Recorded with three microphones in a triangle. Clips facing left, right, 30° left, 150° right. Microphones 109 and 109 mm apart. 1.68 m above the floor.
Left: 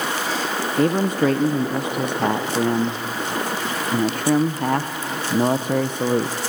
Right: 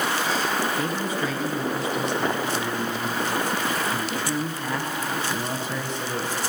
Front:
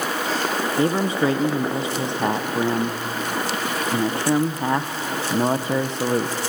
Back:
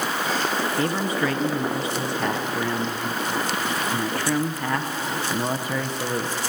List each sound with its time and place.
0.8 s a man speaking: 90° left, 0.8 m